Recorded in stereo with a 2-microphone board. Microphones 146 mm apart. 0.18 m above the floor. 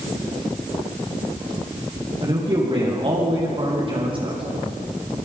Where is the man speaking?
35° right (ahead or behind), 7 m.